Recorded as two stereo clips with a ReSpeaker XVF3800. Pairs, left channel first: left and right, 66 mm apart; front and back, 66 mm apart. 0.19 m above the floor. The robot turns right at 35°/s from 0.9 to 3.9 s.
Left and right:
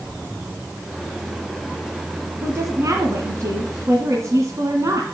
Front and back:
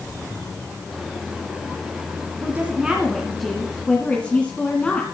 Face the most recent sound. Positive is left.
turn(degrees=-70)